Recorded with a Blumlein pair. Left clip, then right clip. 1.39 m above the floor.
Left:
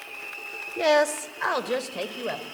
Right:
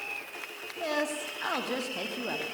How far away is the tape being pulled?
No tape being pulled in this recording.